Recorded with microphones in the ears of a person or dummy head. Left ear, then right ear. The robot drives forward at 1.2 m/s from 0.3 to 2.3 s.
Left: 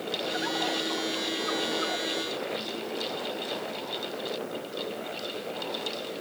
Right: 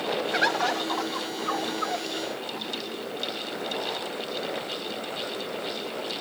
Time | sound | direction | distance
0.3 | a bird | 60° right (ahead or behind) | ?